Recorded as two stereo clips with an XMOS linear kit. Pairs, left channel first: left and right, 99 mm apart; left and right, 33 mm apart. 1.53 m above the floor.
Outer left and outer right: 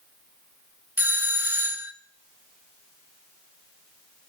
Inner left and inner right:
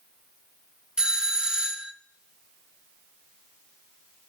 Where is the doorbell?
20° right (ahead or behind), 0.5 m.